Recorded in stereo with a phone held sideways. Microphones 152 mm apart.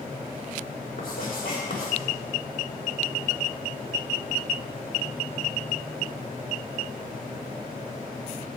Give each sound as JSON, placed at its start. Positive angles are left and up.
{"t": 1.0, "sound": "writing", "side_deg": 85, "distance_m": 3.5}